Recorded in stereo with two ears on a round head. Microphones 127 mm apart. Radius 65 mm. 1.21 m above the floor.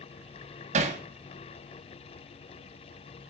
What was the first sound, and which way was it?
Hammering, 55° right (ahead or behind).